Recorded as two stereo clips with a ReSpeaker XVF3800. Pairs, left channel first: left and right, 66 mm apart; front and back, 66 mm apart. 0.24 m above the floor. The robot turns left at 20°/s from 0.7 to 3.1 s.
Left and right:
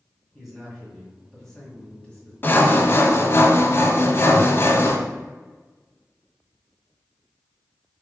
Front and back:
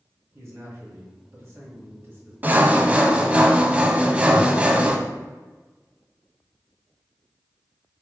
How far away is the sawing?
About 0.5 m.